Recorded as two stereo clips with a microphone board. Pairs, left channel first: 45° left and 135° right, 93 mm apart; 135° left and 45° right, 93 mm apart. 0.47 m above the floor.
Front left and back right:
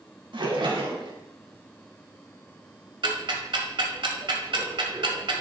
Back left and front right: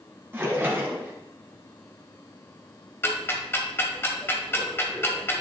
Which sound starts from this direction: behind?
Ticking, at 3.0 s.